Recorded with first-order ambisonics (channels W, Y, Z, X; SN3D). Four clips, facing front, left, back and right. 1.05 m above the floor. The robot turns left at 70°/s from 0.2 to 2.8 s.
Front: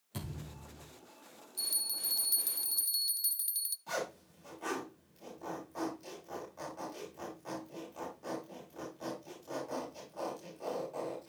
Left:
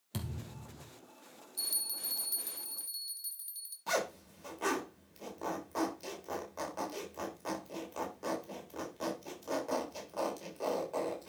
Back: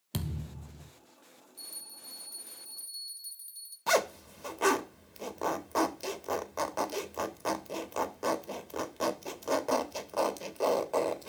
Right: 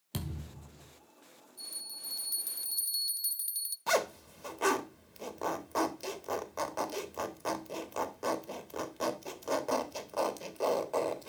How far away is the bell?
About 0.6 m.